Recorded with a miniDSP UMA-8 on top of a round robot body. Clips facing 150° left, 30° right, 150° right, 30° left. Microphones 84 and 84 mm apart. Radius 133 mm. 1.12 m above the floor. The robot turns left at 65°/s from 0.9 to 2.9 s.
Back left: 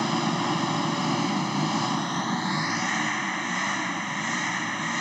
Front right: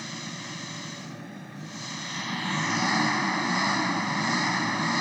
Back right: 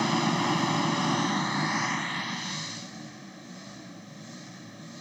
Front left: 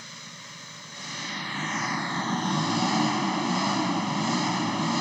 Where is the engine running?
Straight behind; by 5.0 s 50° left.